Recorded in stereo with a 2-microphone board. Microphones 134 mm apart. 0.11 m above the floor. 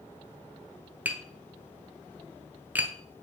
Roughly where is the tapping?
Centre.